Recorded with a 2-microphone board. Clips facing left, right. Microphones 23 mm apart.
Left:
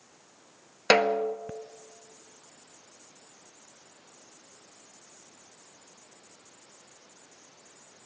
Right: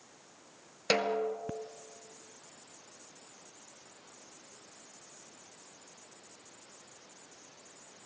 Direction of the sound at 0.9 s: 45° left (ahead or behind).